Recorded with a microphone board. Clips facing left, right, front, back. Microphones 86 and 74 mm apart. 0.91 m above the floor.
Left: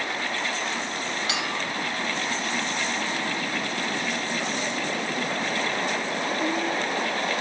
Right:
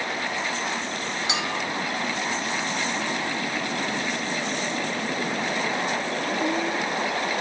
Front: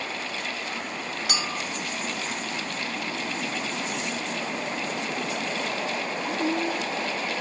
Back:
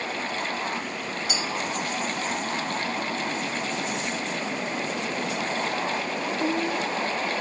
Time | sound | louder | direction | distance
1.3 | a clink | right 3 dB, back 1 dB | 20° right | 1.3 m